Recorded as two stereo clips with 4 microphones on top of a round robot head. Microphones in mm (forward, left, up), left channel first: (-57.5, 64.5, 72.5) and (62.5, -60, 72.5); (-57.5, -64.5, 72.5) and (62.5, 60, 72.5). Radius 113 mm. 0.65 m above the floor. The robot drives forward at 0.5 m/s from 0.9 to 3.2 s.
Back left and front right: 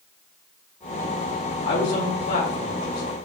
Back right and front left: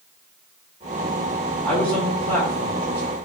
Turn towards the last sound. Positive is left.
turn(degrees=155)